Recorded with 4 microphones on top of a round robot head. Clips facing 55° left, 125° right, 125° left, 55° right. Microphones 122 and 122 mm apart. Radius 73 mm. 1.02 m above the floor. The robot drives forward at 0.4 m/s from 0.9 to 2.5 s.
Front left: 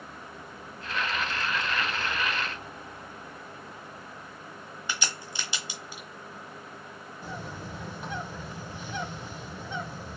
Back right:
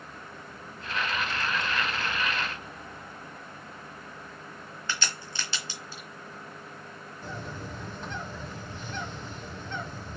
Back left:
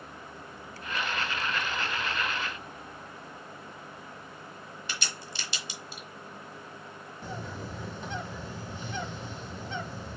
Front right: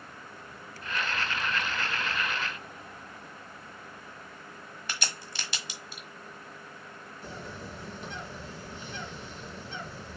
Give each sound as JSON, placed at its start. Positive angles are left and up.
{"t": 4.9, "sound": "a crack", "azimuth_deg": -15, "distance_m": 1.2}
{"t": 7.2, "sound": "a bird", "azimuth_deg": 135, "distance_m": 1.4}